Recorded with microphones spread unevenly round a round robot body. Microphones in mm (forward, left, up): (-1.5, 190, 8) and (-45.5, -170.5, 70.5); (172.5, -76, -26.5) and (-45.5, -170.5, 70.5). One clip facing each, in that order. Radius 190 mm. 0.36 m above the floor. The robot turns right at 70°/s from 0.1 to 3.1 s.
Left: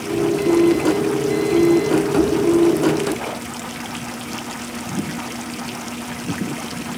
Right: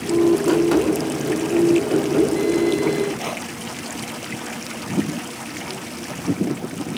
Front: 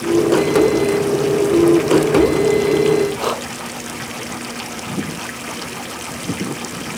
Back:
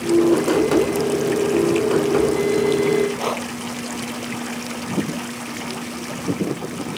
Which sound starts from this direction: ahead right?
Breathing, at 3.2 s.